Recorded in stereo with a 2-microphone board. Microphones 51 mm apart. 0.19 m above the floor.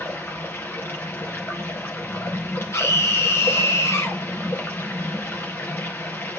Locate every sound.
0.0 s running water: 50° left (ahead or behind), 3 m
2.7 s a scream: 60° left (ahead or behind), 3 m